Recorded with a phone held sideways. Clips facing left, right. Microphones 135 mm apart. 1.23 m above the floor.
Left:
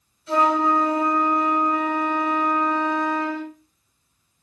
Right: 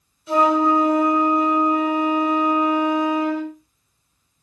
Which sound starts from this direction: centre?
A flute, at 0.3 s.